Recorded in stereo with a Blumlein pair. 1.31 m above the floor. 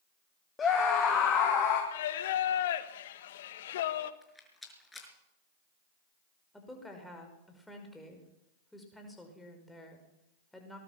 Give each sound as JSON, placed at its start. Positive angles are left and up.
{"t": 0.6, "sound": "a scream", "azimuth_deg": 20, "distance_m": 2.0}
{"t": 1.9, "sound": "singing", "azimuth_deg": 55, "distance_m": 1.2}
{"t": 4.2, "sound": "a rattle", "azimuth_deg": 5, "distance_m": 5.5}
{"t": 6.5, "sound": "a woman speaking", "azimuth_deg": 5, "distance_m": 5.5}